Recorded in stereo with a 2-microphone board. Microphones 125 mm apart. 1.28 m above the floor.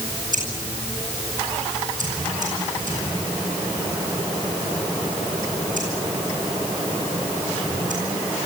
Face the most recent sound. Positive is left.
turn(degrees=-90)